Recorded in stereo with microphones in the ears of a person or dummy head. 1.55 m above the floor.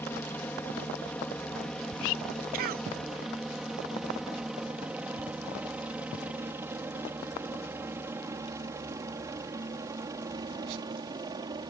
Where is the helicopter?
10° left (ahead or behind); by 11.7 s 20° right (ahead or behind).